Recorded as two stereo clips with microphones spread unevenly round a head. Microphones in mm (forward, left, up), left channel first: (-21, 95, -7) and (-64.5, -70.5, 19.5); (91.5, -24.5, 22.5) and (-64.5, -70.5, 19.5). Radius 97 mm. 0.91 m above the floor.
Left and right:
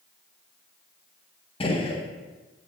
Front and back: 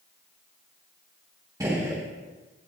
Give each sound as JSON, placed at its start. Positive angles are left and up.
{"t": 1.6, "sound": "a gunshot", "azimuth_deg": 125, "distance_m": 1.6}